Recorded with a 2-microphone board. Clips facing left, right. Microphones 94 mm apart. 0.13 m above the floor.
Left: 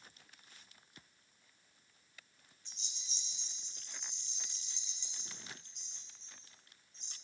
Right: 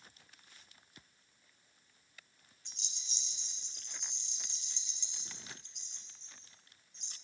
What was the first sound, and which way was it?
A rattle, 65° right (ahead or behind).